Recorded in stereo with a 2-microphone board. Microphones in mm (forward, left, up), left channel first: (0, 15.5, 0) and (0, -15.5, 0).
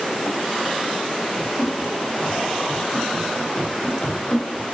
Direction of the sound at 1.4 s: 20° left (ahead or behind).